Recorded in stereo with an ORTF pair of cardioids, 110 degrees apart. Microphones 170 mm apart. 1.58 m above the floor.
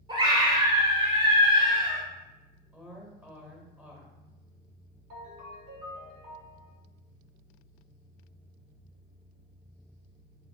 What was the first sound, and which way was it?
A scream, 35° right.